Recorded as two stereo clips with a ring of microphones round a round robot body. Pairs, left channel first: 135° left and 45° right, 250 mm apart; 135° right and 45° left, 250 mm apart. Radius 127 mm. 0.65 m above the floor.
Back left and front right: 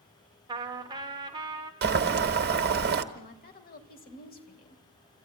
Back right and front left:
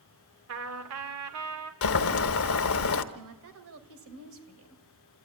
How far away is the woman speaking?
About 2.5 m.